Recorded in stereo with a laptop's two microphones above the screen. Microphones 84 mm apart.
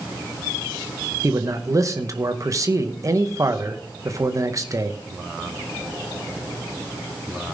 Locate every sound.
1.2 s a man speaking: 40° right (ahead or behind), 0.8 m